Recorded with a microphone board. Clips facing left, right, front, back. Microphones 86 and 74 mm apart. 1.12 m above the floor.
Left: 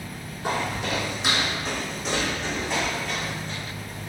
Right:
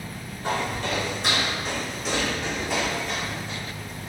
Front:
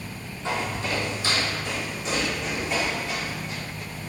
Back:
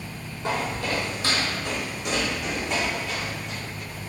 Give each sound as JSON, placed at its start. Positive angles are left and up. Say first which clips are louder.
{"t": 0.4, "sound": "footsteps", "louder": "even, back 1 dB", "azimuth_deg": 165, "distance_m": 1.5}